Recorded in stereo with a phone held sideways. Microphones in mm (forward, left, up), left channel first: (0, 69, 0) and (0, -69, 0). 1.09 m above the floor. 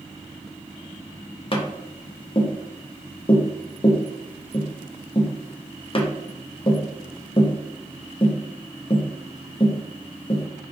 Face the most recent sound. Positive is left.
turn(degrees=40)  # may be behind; listen again after turning